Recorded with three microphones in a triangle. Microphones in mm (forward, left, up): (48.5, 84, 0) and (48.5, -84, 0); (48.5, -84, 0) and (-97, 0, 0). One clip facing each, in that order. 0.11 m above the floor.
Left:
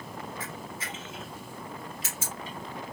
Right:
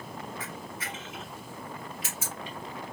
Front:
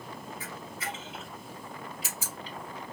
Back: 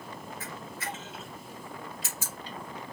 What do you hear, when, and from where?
0.4 s a camera shutter: 40° left, 2.5 m